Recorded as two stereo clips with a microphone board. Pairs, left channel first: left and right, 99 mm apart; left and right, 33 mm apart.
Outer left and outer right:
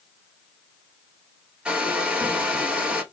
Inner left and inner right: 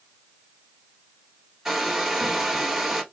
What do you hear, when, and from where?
1.6 s a hair dryer: 10° right (ahead or behind), 1.1 m